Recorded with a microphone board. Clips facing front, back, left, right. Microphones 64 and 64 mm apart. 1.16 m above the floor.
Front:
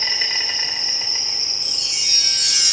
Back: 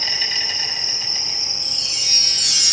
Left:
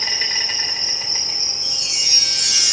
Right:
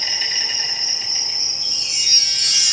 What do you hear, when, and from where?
0.0 s an insect: 35° left, 3.5 m
1.6 s a chime: 20° left, 3.5 m